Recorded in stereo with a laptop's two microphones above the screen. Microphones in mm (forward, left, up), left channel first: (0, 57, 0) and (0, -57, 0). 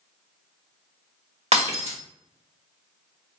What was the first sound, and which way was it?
Breaking glass, 65° right (ahead or behind).